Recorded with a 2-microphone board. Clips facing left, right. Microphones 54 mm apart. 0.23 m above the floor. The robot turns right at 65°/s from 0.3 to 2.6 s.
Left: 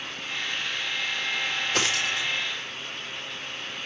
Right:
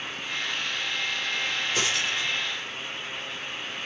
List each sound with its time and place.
1.7 s a dropped coin: 80° left, 4.5 m; by 2.3 s 65° left (ahead or behind), 4.5 m